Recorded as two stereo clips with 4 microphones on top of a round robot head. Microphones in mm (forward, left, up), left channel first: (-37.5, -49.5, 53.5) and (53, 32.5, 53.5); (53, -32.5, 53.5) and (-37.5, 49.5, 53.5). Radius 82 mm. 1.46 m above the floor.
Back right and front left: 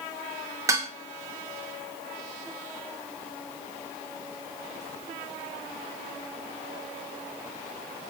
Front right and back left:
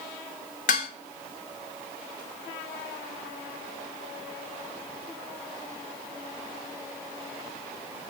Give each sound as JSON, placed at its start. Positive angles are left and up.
{"t": 0.7, "sound": "dishes clattering", "azimuth_deg": -25, "distance_m": 1.6}